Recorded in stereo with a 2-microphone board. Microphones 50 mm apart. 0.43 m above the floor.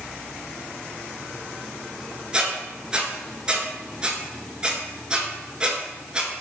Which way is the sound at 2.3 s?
20° right (ahead or behind).